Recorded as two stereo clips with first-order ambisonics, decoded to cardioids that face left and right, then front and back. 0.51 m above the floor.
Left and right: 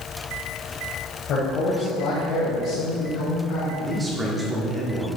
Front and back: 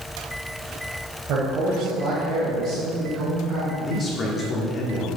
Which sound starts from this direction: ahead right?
A man speaking, at 3.8 s.